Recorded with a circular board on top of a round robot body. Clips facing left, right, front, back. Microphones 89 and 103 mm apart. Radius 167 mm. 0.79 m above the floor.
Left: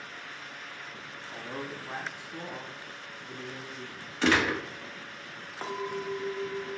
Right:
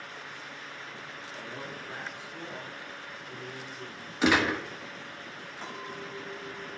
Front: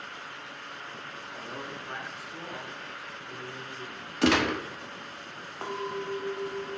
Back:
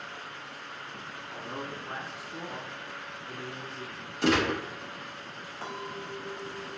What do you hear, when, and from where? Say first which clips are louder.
1.3 s a man speaking: left 4 dB, back 2 dB; 105° left, 2.5 m
4.2 s a gunshot: right 1 dB, front 1 dB; 10° right, 1.5 m
5.6 s a clink: left 8 dB, front 6 dB; 45° left, 1.5 m